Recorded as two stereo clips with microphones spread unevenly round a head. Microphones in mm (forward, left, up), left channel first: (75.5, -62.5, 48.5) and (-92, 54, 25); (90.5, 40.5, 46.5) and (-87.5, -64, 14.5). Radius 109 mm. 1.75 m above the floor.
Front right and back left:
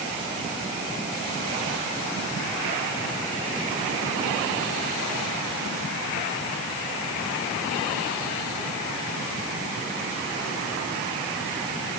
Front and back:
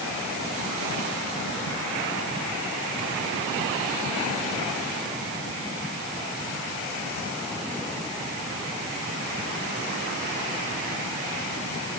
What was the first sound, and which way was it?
Only background noise.